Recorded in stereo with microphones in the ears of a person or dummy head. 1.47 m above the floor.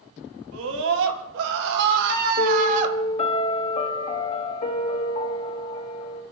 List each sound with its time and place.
0.5 s a scream: 80° right, 3 m; by 3.0 s 40° right (ahead or behind), 1.7 m
2.4 s a piano: 30° left (ahead or behind), 1.8 m